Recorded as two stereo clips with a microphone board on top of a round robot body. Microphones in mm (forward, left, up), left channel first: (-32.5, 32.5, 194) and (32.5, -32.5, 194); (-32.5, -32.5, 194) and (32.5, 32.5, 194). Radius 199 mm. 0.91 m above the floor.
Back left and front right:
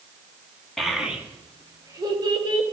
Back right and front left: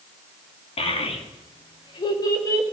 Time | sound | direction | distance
0.8 | a child speaking | 135° right | 1.8 m